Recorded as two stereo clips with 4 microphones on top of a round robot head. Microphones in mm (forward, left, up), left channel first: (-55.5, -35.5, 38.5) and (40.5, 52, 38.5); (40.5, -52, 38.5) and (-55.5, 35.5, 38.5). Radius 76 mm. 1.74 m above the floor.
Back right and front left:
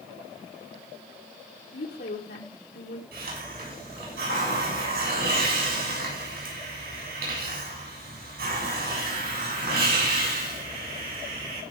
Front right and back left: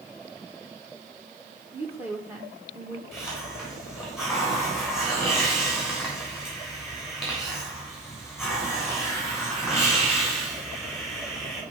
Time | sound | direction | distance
1.7 | a woman speaking | 145° right | 2 m
3.1 | a hiss | 50° left | 7.5 m